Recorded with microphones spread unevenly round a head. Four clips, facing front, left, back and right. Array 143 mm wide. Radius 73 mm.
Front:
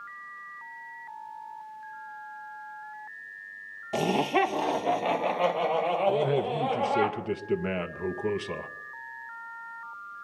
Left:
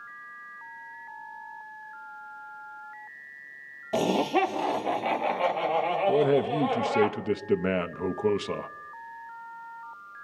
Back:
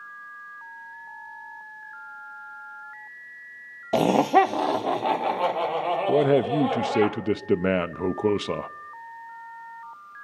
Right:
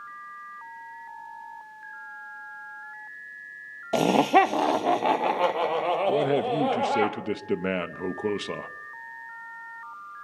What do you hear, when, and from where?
3.9 s laughter: 150° right, 0.7 m; by 7.1 s 105° right, 5 m
6.1 s a man speaking: 165° right, 0.6 m